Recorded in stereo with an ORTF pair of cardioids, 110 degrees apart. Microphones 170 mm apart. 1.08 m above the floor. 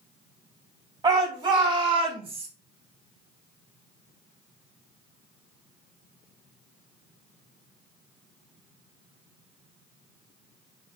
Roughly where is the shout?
Ahead right.